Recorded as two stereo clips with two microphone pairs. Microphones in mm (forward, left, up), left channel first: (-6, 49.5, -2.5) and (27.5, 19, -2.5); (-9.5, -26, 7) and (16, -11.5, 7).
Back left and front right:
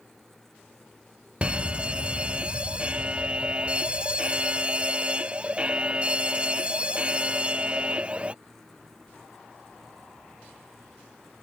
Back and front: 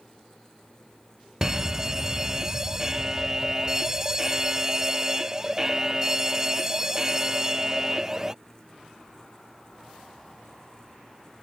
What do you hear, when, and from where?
1.4 s a fire alarm: 25° right